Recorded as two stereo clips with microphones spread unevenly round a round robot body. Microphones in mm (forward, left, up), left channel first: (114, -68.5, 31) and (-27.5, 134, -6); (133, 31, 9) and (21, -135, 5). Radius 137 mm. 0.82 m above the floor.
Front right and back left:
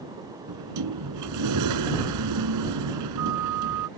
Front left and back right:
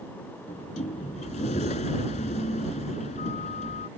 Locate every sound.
0.5 s a sliding door: 120° left